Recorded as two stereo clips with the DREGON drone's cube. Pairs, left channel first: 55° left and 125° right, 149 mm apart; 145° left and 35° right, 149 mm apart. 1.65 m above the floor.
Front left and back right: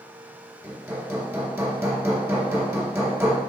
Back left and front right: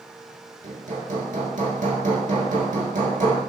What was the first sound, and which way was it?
Hammering, 55° right.